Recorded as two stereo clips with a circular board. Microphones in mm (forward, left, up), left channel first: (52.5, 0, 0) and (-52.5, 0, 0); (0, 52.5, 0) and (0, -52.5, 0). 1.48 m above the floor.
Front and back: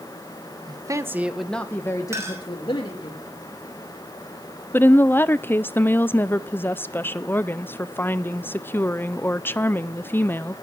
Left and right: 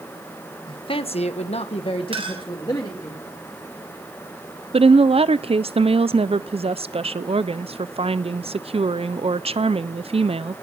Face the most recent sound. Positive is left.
turn(degrees=-70)